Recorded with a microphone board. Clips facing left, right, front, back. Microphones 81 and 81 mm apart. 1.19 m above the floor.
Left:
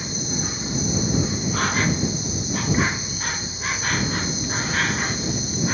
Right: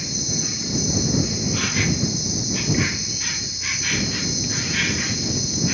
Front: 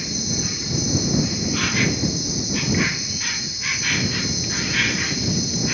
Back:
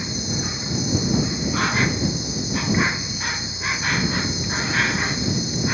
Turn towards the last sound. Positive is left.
turn(degrees=130)